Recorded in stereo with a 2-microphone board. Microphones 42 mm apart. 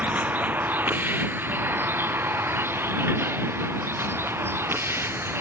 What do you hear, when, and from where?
0.0 s a vehicle: 40° right (ahead or behind); by 5.4 s 75° right (ahead or behind)